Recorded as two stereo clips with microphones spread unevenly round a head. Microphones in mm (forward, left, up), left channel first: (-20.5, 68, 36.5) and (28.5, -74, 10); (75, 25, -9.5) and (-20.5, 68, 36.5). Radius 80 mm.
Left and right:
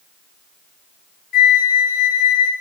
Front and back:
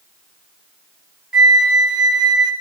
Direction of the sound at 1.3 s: 85° left.